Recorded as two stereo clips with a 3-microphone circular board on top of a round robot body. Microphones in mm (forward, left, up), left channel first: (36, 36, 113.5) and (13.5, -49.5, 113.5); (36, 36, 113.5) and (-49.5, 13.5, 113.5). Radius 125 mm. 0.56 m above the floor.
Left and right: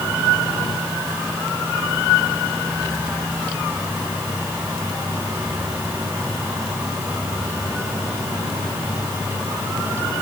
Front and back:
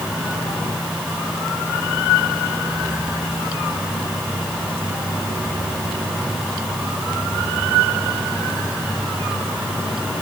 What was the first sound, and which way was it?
Only background noise.